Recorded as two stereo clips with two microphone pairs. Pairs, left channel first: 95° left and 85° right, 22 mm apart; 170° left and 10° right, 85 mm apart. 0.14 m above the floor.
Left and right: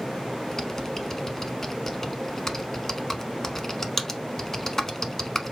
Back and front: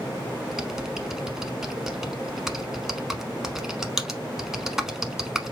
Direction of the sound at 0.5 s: 60° left.